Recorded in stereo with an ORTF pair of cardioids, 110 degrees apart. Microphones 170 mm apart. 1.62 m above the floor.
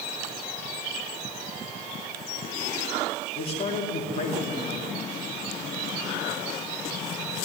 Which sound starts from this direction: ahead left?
A man speaking, at 3.4 s.